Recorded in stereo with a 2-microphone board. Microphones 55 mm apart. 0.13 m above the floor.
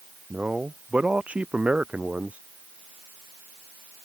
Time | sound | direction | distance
0.3 | a man speaking | 25° right (ahead or behind) | ?